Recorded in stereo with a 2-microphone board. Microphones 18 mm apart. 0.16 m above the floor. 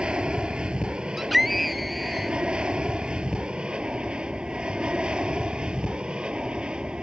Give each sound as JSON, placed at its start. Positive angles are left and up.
{"t": 0.0, "sound": "an aircraft", "side_deg": -65}
{"t": 1.2, "sound": "a scream", "side_deg": 0}